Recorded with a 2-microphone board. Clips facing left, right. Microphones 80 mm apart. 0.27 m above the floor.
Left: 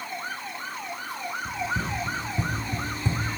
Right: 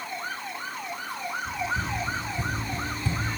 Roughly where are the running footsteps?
Left.